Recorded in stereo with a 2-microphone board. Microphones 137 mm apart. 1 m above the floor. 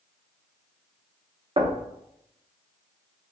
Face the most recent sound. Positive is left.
turn(degrees=-40)  # may be behind; listen again after turning